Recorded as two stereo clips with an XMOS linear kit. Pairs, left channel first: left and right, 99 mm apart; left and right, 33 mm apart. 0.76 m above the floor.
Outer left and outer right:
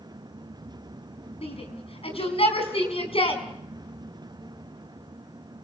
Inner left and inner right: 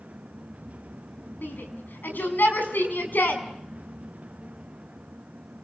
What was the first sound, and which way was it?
A shout, 80° left.